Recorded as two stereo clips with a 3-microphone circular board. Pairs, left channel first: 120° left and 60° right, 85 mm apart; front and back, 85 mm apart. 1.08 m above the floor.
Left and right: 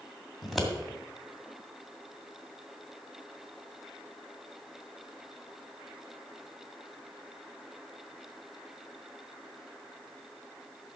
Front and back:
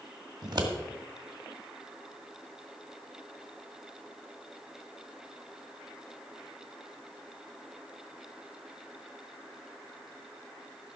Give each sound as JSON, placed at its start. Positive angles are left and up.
{"t": 0.4, "sound": "scissors", "azimuth_deg": -150, "distance_m": 1.9}